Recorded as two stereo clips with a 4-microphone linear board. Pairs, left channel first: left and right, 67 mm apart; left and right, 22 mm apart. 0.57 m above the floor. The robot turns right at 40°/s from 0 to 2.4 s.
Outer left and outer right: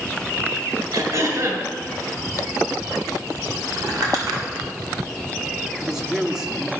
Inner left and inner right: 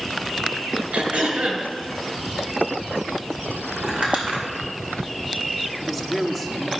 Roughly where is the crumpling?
Right.